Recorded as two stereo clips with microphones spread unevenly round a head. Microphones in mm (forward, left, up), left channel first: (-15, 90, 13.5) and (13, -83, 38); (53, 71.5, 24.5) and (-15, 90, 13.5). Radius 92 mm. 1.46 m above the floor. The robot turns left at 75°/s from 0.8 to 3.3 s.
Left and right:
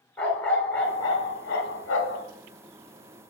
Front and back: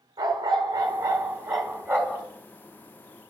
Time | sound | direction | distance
0.2 | a dog barking | 170° right | 1.6 m